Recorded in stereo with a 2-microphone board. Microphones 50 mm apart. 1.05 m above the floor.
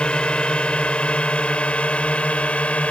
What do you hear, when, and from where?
0.0 s a drone: 20° left (ahead or behind); by 2.9 s 25° left (ahead or behind)